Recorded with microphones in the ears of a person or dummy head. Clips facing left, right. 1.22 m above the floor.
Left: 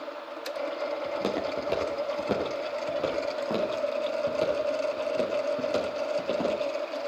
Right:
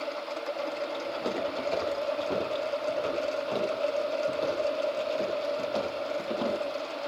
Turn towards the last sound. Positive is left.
turn(degrees=80)